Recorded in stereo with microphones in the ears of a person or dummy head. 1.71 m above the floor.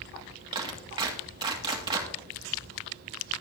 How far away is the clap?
About 2.5 m.